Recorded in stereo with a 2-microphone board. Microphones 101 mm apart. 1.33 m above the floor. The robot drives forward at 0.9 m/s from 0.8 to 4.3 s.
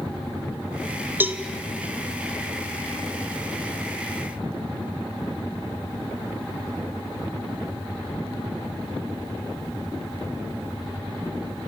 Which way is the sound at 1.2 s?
20° right (ahead or behind).